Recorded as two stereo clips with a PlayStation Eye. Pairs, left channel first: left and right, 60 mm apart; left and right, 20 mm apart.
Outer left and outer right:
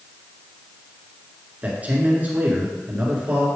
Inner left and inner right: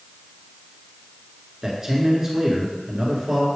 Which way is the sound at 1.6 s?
25° right (ahead or behind).